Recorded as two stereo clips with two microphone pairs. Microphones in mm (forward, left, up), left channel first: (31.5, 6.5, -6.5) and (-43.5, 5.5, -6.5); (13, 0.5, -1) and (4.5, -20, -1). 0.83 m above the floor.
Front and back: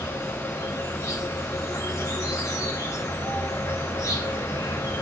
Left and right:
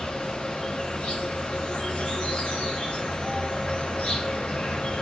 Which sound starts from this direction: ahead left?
An insect, at 0.0 s.